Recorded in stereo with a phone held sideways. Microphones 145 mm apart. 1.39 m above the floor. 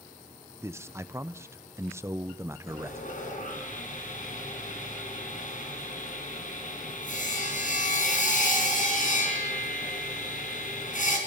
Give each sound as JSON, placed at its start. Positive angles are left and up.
{"t": 0.6, "sound": "a man speaking", "side_deg": -20, "distance_m": 0.9}
{"t": 2.7, "sound": "sawing", "side_deg": 60, "distance_m": 4.5}